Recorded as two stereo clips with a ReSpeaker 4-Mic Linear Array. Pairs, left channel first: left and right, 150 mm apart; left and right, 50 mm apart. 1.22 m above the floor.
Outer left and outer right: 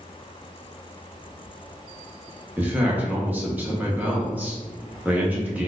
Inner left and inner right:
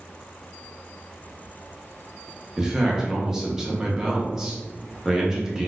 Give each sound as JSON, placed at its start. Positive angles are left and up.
{"t": 2.6, "sound": "a man speaking", "side_deg": -10, "distance_m": 0.8}